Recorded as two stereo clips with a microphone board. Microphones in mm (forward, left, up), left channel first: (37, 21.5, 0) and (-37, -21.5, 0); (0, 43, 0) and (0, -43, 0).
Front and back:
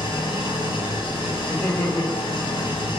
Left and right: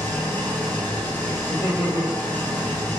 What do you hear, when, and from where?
0.0 s an engine running: 20° left, 1.2 m
1.5 s laughter: 115° left, 1.5 m